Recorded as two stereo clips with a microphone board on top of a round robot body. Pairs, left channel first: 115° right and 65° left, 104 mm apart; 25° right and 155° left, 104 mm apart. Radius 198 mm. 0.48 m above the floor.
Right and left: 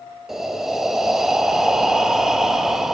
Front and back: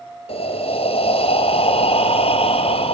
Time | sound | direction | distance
0.3 | breathing | 20° right | 1.1 m